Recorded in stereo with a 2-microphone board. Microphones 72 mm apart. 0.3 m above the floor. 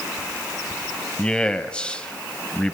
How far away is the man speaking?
About 1.2 m.